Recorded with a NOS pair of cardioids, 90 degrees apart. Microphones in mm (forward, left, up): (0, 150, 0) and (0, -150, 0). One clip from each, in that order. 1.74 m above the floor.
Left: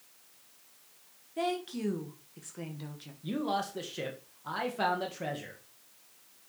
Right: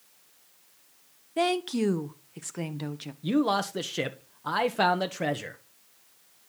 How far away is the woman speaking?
About 1.3 m.